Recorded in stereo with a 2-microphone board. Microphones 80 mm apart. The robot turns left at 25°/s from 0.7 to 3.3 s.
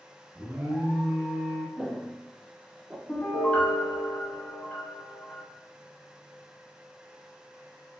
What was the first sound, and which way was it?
An alarm, 20° right (ahead or behind).